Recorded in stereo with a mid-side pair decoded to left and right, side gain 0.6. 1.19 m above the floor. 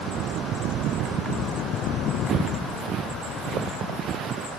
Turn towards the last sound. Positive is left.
turn(degrees=-50)